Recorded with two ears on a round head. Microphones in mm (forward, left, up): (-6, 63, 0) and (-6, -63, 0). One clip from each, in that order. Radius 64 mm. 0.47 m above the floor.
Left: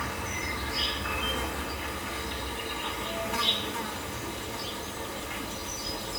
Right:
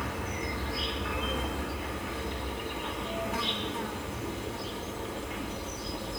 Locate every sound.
0.0 s an insect: 45° left (ahead or behind), 4 m